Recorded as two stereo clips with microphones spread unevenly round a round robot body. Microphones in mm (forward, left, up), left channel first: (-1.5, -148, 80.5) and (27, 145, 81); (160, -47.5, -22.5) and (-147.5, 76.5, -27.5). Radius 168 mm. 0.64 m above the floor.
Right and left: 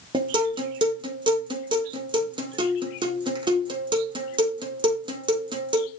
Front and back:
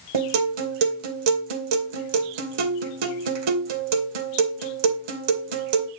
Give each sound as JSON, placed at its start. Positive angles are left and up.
{"t": 0.1, "sound": "a guitar", "azimuth_deg": 160, "distance_m": 2.5}